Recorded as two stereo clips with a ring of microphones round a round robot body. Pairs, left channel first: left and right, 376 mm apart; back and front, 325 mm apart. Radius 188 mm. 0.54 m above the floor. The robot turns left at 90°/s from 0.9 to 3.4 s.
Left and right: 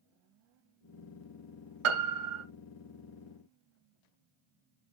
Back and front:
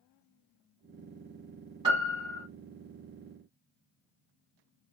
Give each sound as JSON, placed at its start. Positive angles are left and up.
{"t": 1.8, "sound": "a piano", "azimuth_deg": -75, "distance_m": 0.8}